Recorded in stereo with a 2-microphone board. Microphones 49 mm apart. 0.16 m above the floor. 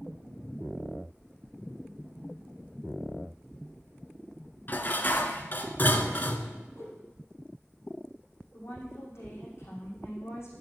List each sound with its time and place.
4.7 s dishes clattering: 45° left (ahead or behind), 1.1 m
6.8 s a whoosh: 65° left (ahead or behind), 3.5 m
8.5 s a woman speaking: 65° left (ahead or behind), 7 m